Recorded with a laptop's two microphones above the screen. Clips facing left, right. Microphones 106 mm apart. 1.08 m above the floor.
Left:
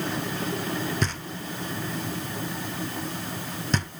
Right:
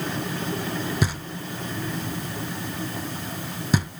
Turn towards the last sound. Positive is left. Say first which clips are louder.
# right 2 dB
turn(degrees=-10)  # may be behind; listen again after turning